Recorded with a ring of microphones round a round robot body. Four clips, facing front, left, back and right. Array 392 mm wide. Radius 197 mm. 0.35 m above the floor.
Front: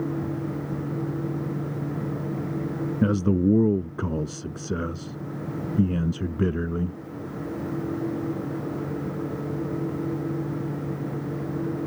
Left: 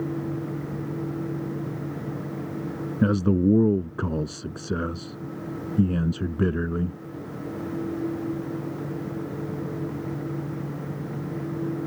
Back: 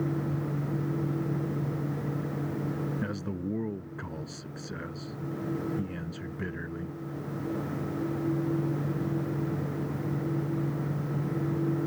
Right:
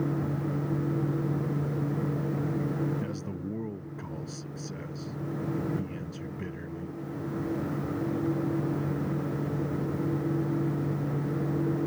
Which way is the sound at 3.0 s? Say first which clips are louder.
Left 15 dB, front 12 dB; 50° left.